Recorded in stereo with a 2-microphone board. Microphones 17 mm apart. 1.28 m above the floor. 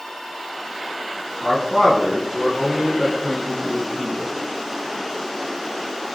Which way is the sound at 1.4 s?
35° left (ahead or behind).